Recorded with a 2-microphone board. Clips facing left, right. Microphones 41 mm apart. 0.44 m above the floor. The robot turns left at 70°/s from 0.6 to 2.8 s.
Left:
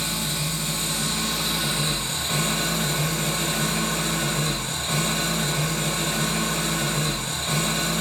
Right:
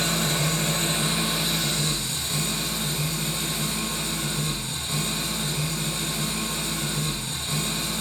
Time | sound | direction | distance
0.0 | an engine running | 120° right | 0.8 m